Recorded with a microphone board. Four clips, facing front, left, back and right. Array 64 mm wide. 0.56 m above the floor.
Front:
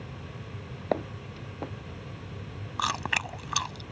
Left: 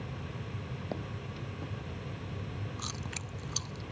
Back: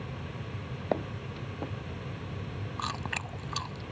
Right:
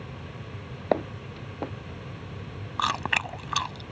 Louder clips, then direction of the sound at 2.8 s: Right 15 dB, front 7 dB; 70° right.